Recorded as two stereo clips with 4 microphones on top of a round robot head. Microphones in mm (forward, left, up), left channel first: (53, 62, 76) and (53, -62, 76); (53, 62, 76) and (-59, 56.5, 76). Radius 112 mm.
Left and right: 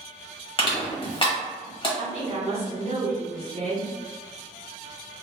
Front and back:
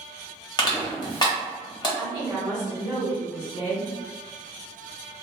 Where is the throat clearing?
I don't hear throat clearing.